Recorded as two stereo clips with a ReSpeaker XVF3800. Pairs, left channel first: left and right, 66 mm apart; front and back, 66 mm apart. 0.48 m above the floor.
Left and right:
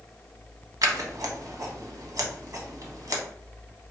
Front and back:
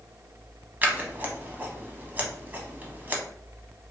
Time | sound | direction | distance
0.8 | scissors | 120° right | 0.7 m